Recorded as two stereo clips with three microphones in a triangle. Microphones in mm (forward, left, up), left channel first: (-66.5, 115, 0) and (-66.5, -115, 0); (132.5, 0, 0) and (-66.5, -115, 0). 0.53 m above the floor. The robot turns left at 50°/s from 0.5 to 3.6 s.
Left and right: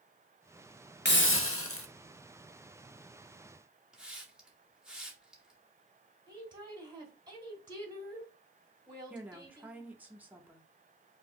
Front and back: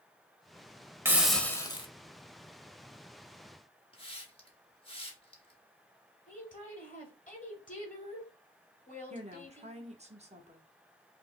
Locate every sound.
1.1 s a hiss: 130° left, 0.6 m; by 1.9 s 90° left, 0.6 m
3.9 s a hiss: 5° right, 1.1 m
6.3 s a woman speaking: 20° right, 1.6 m
9.1 s a woman speaking: 165° right, 0.7 m